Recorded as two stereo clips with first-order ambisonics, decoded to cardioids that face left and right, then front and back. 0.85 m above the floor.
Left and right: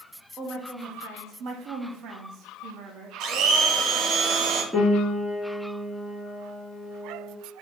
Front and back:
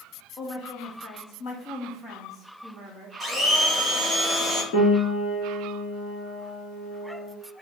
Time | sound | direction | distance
0.4 | a woman speaking | 25° right | 1.4 m
3.2 | a blender | 75° right | 0.9 m
4.7 | a piano | 5° right | 1.6 m